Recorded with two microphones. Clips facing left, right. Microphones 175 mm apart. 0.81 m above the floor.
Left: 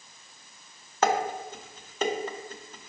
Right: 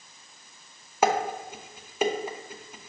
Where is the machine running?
No machine running in this recording.